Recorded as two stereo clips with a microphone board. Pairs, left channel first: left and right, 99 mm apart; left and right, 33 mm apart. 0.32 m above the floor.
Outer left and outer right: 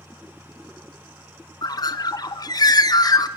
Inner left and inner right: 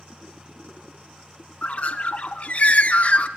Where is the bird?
40° left (ahead or behind), 0.5 m.